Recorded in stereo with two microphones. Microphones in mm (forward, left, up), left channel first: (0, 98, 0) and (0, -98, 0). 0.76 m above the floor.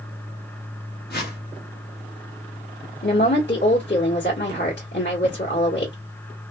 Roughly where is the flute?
No flute in this recording.